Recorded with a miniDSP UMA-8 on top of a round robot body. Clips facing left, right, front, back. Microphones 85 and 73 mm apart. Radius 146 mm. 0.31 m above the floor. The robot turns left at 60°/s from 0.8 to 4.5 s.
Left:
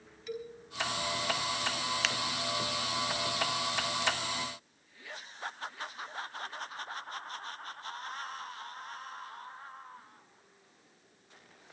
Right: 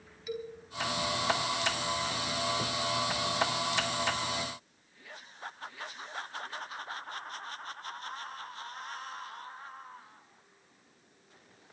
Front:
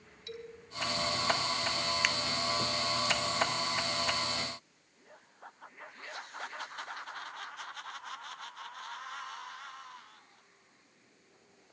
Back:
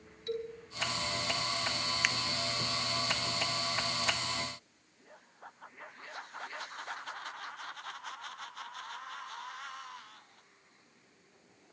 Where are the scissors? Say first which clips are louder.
Left 1 dB, even; 90° left, 0.7 m; by 2.1 s 85° left, 0.7 m.